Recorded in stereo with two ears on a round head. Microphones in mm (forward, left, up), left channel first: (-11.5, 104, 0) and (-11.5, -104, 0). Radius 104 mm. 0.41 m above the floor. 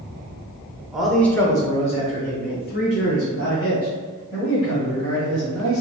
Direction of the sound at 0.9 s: 5° right (ahead or behind).